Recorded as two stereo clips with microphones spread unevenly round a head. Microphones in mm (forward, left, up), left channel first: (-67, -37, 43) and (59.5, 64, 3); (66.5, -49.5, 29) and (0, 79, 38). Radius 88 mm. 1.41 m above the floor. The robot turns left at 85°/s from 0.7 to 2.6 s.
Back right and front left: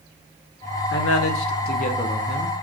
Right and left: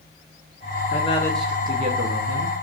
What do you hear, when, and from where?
0.9 s a man speaking: 110° right, 0.7 m; by 2.5 s 110° left, 0.7 m